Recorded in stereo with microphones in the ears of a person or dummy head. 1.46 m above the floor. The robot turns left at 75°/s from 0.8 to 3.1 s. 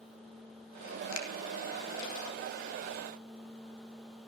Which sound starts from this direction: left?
A finger snap, at 1.1 s.